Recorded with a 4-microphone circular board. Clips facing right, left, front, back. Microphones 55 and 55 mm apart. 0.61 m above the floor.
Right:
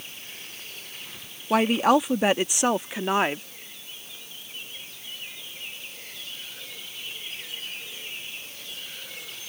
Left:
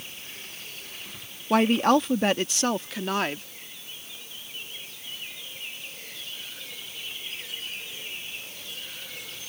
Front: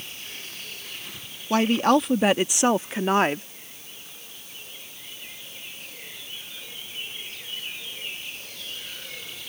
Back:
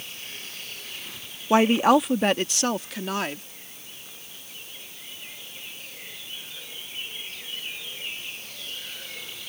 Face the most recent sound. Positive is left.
turn(degrees=-30)